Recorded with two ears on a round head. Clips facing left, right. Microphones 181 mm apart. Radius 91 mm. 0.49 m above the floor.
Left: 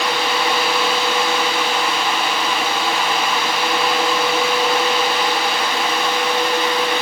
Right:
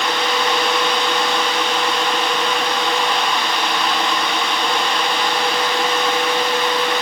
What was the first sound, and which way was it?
Only background noise.